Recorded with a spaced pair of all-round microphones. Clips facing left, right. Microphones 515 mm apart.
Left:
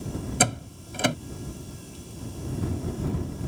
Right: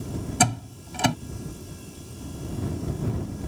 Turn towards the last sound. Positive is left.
turn(degrees=-15)  # may be behind; listen again after turning